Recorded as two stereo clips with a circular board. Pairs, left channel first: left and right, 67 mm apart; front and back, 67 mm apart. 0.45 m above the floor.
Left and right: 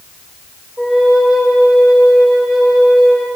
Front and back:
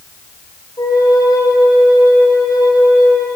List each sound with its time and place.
0.8 s a flute: 5° right, 7.5 m